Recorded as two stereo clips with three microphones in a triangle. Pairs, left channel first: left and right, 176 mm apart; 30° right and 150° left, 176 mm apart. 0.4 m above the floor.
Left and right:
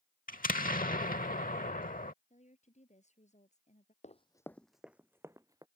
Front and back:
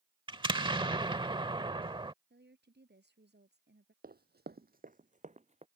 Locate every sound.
0.3 s an explosion: 95° left
2.3 s a woman speaking: 140° left
4.0 s running footsteps: 130° left; by 5.7 s 160° right